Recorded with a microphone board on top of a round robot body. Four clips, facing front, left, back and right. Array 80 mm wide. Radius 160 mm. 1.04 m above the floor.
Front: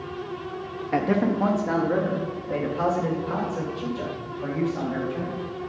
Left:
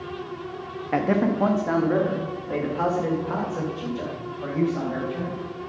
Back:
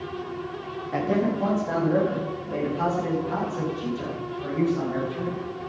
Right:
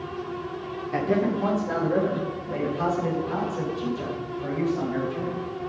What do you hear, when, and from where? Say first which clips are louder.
0.9 s a man speaking: left 2 dB, front 2 dB; 70° left, 1.8 m; by 5.4 s 75° left, 7 m